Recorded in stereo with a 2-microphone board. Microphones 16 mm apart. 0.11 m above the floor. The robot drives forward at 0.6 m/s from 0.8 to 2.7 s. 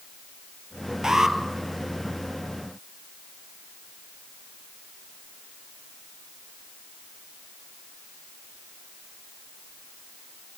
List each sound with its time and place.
1.0 s an alarm: 35° right (ahead or behind), 2 m; by 1.4 s 30° right (ahead or behind), 2 m